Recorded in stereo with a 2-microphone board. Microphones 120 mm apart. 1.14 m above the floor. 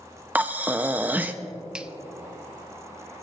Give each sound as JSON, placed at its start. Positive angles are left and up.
{"t": 0.3, "sound": "breathing", "side_deg": -15, "distance_m": 0.7}
{"t": 1.7, "sound": "a finger snap", "side_deg": -5, "distance_m": 0.5}